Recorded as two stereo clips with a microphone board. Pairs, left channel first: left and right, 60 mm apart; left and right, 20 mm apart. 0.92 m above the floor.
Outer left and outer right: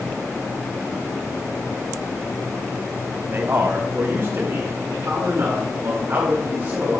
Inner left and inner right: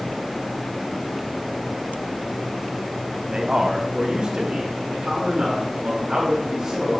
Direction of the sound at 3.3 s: 40° right (ahead or behind).